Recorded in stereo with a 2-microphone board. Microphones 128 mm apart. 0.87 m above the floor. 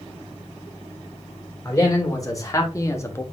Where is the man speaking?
30° left (ahead or behind), 3.5 m; by 3.2 s 20° left (ahead or behind), 1.2 m.